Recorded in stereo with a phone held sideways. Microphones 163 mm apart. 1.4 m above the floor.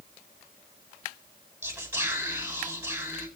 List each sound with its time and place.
1.6 s whispering: 15° right (ahead or behind), 10 m